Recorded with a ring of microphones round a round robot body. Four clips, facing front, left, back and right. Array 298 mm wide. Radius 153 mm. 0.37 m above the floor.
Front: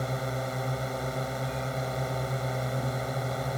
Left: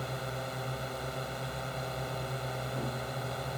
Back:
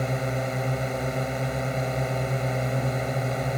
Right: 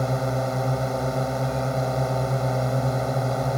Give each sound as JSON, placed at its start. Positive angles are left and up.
{"t": 0.0, "sound": "a drone", "azimuth_deg": -110}